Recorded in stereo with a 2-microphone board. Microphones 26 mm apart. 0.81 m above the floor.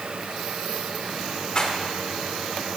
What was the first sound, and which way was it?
A rattle, 40° left (ahead or behind).